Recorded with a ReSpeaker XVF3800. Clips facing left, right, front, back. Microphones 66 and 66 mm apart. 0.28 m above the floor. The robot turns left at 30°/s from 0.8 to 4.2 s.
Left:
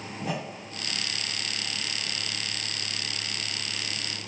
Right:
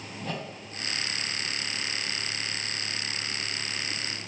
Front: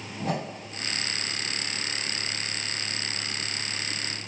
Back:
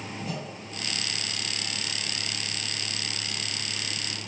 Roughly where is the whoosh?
Ahead.